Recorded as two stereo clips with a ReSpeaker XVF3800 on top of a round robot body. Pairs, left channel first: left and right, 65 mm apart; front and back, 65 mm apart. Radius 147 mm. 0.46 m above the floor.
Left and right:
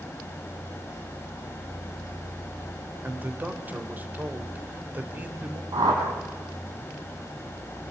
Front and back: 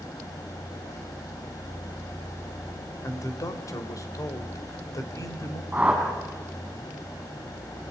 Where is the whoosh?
105° right, 6.5 m.